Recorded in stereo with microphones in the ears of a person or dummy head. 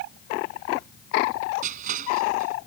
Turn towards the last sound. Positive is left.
turn(degrees=-45)  # may be behind; listen again after turning